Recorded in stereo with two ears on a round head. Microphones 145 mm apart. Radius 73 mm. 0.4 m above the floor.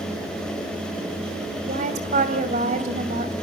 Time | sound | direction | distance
1.6 | a woman speaking | 45° right (ahead or behind) | 2.5 m